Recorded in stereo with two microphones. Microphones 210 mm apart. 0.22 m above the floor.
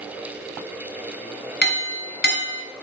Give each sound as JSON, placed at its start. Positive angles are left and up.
{"t": 1.6, "sound": "a clink", "side_deg": 60, "distance_m": 1.5}